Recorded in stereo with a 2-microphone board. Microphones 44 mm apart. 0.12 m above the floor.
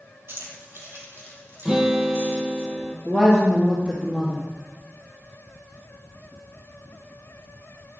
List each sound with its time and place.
0.3 s keys jangling: 55° right (ahead or behind), 2 m; by 2.6 s 60° right (ahead or behind), 5.5 m
1.6 s a guitar: 15° right (ahead or behind), 1.7 m
3.0 s a woman speaking: 20° right (ahead or behind), 2.5 m